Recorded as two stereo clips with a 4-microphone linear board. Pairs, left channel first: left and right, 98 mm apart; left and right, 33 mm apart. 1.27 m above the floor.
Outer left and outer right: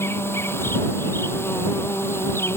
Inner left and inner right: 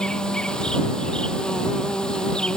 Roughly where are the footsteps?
I don't hear footsteps.